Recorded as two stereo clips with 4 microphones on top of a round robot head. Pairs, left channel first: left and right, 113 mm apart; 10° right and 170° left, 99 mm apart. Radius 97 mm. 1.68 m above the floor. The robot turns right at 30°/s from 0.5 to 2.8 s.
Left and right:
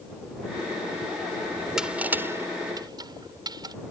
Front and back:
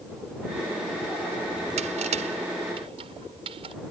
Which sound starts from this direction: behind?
Crushing, at 1.8 s.